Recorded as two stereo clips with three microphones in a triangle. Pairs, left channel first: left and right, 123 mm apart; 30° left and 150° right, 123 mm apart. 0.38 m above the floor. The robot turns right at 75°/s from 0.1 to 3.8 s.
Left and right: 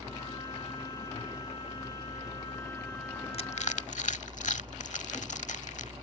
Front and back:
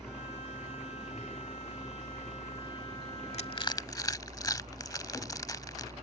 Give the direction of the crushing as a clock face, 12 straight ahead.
10 o'clock.